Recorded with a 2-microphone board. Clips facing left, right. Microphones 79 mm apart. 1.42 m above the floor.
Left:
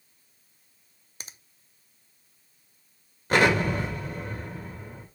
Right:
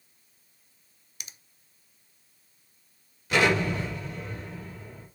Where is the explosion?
45° left (ahead or behind), 2.5 m.